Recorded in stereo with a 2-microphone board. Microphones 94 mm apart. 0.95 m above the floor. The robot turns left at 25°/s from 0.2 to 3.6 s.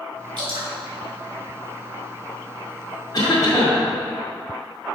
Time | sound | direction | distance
0.4 | dripping | 60° right (ahead or behind) | 2.5 m
3.1 | a cough | 45° left (ahead or behind) | 2 m